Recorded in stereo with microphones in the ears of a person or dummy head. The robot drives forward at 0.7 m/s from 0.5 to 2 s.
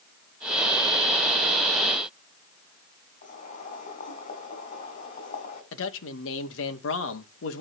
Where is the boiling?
40° left (ahead or behind), 7.5 m.